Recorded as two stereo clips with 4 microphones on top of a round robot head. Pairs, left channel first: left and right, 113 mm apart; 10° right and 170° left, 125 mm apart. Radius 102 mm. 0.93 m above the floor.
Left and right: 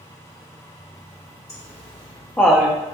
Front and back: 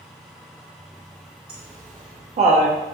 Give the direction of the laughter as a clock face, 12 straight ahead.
9 o'clock.